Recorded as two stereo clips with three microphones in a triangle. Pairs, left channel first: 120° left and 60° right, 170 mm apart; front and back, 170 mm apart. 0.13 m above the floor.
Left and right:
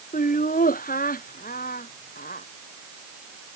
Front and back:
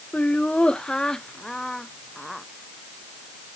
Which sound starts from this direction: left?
Laughter, at 0.1 s.